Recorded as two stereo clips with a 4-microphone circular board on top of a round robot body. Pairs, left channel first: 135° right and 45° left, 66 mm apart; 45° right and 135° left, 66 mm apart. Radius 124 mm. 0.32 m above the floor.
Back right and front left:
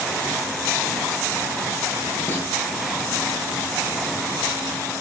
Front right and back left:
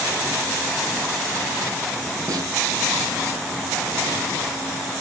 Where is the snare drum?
165° left, 10 m.